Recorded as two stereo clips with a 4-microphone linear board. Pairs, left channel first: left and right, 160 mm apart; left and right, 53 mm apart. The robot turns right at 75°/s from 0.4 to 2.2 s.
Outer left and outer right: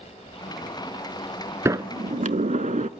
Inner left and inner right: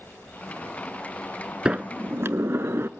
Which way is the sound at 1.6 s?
160° right.